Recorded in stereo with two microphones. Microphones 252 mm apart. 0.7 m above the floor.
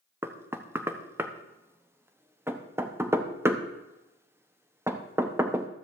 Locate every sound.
0.2 s knocking: 10° right (ahead or behind), 0.9 m